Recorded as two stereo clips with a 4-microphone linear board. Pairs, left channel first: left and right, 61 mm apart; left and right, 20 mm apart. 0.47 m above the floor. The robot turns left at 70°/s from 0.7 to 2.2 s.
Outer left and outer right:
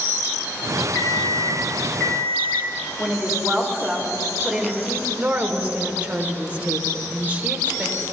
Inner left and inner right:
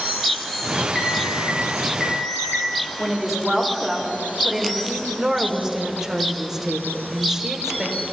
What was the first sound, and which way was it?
An alarm clock, 120° left.